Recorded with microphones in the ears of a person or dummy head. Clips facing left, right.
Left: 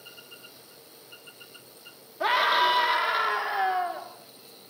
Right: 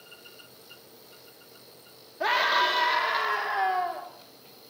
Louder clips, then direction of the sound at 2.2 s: Left 1 dB; 10° right (ahead or behind).